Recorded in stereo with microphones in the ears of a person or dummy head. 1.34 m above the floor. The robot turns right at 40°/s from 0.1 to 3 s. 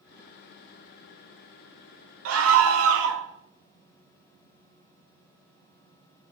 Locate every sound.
2.2 s a scream: 105° right, 0.6 m; by 3.2 s 75° right, 0.6 m